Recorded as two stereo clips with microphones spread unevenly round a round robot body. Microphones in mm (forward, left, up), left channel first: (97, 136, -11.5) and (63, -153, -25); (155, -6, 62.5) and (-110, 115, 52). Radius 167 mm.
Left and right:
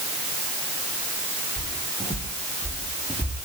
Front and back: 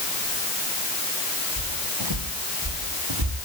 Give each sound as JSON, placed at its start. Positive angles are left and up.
{"t": 1.6, "sound": "footsteps", "azimuth_deg": 170, "distance_m": 7.5}